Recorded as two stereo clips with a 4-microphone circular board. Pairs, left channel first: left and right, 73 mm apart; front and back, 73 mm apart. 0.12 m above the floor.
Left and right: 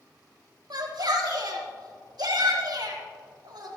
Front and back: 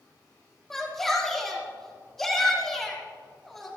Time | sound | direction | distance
0.7 | a shout | 85° right | 4.5 m